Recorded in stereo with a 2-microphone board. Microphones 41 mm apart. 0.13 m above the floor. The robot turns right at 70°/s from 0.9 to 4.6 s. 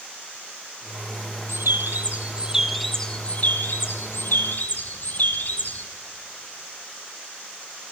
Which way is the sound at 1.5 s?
90° right.